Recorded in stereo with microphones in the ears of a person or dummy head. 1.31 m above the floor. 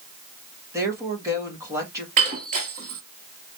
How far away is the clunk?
No clunk in this recording.